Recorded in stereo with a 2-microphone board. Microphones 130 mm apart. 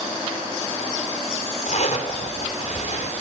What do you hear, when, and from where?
1.7 s a zipper: 70° left (ahead or behind), 3 m